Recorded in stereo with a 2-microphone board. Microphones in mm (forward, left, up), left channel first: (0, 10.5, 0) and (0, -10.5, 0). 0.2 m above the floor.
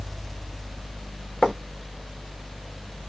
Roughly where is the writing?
Left.